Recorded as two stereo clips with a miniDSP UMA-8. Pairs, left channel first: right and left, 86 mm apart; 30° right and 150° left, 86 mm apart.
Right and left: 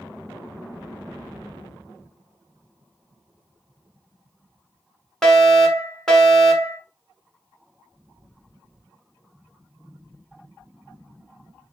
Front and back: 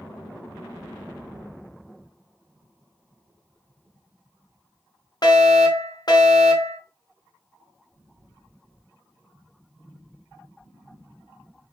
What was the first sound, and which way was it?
A fire alarm, 5° right.